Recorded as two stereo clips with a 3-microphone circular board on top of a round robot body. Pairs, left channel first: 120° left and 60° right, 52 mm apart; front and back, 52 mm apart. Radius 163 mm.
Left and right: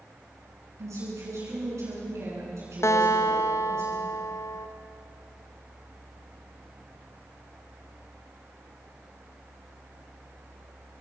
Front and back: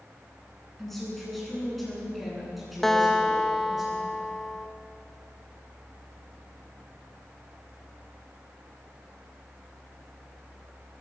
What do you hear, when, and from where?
0.8 s a woman speaking: 85° right, 10 m; by 3.8 s 95° right, 10 m
2.8 s a guitar: 85° left, 0.7 m